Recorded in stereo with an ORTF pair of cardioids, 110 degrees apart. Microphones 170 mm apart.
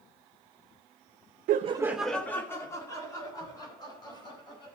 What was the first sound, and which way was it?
Laughter, 65° right.